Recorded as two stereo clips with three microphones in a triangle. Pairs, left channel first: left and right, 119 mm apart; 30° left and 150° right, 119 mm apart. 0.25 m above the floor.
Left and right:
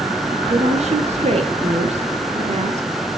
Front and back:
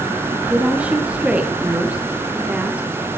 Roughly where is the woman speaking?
Right.